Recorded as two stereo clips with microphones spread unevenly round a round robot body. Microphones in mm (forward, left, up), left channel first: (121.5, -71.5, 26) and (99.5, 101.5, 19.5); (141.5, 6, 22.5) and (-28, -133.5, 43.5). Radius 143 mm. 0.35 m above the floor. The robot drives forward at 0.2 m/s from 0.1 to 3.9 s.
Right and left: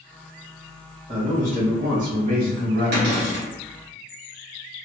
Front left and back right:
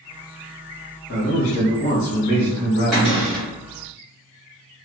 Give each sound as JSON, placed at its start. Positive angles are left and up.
{"t": 1.1, "sound": "a man speaking", "azimuth_deg": 55, "distance_m": 1.5}
{"t": 2.9, "sound": "a cupboard door", "azimuth_deg": 125, "distance_m": 0.8}